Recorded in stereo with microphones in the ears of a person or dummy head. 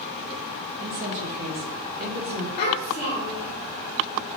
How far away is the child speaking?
About 0.7 m.